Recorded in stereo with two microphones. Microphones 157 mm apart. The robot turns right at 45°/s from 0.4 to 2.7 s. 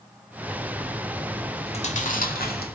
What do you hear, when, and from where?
1.7 s chewing: 40° left (ahead or behind), 2.5 m; by 2.8 s 85° left, 2.5 m